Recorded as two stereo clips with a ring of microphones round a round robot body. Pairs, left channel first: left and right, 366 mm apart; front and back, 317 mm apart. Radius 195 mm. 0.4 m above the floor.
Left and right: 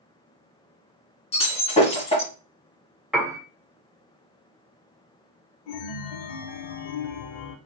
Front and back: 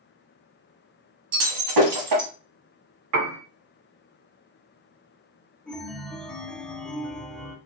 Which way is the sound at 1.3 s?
165° left.